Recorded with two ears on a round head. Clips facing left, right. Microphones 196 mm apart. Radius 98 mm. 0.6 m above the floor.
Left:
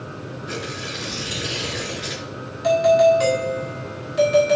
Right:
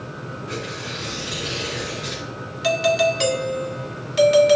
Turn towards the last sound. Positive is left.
turn(degrees=-45)  # may be behind; listen again after turning